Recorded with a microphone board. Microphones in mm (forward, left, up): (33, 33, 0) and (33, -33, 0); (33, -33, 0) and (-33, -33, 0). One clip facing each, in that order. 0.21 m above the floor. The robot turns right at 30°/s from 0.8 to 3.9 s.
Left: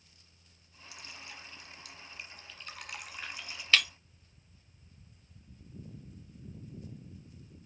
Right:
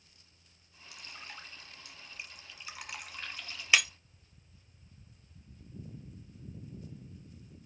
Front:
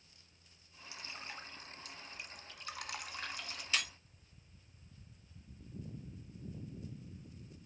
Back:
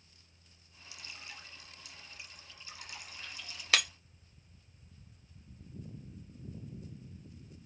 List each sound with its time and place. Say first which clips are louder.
0.9 s dripping: right 1 dB, front 2 dB; 60° right, 1.3 m; by 3.6 s 20° left, 1.3 m
3.7 s breaking glass: right 1 dB, back 6 dB; 165° right, 0.6 m; by 3.9 s 160° right, 0.6 m